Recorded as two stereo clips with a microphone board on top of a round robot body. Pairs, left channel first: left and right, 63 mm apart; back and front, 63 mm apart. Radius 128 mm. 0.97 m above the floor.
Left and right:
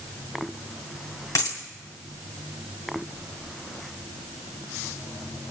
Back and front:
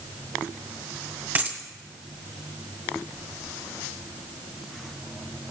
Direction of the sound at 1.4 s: 60° left.